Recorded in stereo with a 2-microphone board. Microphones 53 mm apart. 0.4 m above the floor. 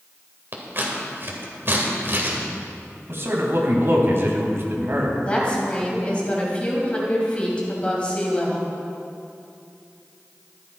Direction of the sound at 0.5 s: 45° right (ahead or behind).